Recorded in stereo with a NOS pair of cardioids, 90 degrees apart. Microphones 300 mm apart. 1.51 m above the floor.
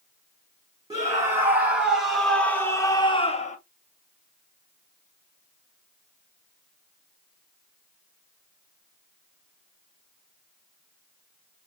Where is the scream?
10° right, 2.5 m; by 3.6 s 25° left, 1.4 m.